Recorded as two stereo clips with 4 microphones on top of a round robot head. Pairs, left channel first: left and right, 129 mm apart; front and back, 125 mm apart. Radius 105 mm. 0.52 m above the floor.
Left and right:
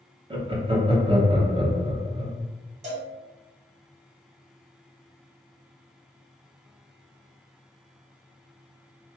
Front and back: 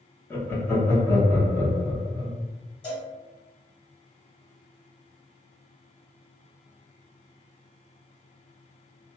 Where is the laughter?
65° right, 0.9 m.